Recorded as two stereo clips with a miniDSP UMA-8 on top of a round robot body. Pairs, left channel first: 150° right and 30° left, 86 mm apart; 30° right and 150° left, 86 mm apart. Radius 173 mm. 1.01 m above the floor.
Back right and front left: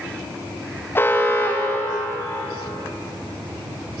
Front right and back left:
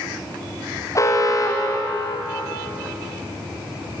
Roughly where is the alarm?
Right.